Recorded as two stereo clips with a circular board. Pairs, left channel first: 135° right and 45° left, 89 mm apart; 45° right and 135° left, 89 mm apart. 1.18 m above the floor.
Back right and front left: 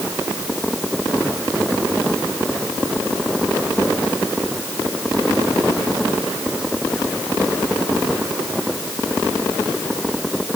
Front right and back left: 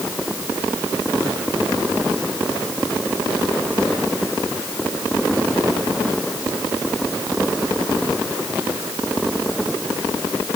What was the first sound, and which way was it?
Only background noise.